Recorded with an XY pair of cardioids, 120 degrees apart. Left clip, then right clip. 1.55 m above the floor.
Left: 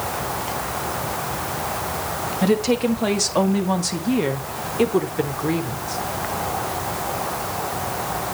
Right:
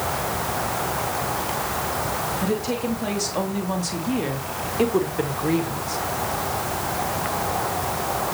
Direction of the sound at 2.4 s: 50° left.